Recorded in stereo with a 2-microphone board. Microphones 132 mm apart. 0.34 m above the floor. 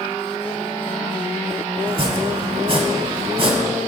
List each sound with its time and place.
1.9 s chopping: 40° right (ahead or behind), 0.9 m